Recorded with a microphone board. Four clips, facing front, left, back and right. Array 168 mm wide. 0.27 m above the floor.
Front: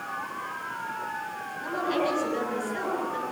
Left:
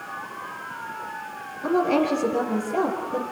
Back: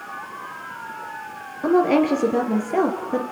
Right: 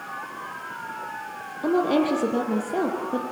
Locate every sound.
1.6 s a woman speaking: 155° right, 5.5 m; by 3.2 s 165° right, 5 m